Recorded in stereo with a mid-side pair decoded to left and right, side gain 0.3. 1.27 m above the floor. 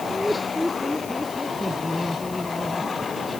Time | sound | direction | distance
0.1 | laughter | 10° left | ?